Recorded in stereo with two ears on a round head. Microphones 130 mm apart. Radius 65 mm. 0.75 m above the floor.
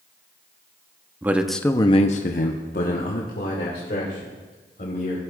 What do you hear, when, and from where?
1.2 s a man speaking: 15° right (ahead or behind), 0.8 m; by 5.2 s 55° left (ahead or behind), 3.5 m